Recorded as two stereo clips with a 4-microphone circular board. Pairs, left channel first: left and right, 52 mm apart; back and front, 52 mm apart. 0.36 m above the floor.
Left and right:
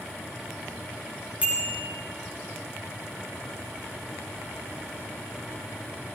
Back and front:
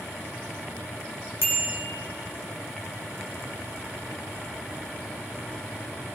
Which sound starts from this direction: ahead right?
A bicycle bell, at 1.4 s.